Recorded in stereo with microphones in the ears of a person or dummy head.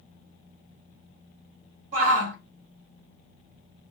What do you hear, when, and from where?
1.9 s a shout: 45° right (ahead or behind), 2.5 m